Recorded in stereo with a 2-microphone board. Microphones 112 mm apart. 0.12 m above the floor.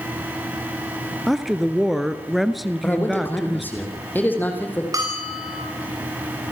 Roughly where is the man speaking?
Centre.